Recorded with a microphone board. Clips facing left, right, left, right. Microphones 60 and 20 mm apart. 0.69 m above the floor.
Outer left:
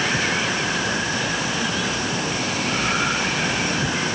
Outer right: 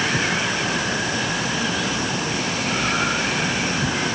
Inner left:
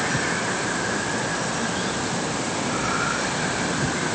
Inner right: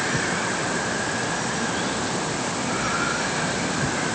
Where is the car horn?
I don't hear a car horn.